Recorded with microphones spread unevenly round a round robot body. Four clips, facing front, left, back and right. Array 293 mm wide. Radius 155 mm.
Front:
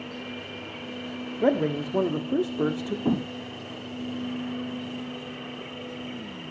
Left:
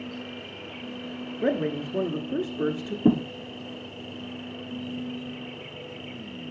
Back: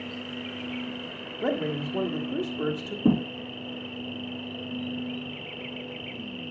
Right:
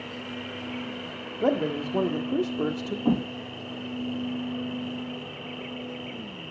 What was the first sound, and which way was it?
An insect, 50° left.